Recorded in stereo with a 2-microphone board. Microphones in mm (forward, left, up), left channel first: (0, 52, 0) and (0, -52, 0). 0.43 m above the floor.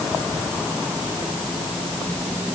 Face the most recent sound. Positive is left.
No sound to turn to.